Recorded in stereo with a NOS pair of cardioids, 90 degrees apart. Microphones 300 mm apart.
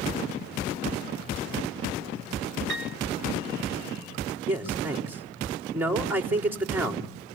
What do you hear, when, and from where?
2.7 s a piano: 40° right, 1.2 m
4.5 s a man speaking: 5° right, 4 m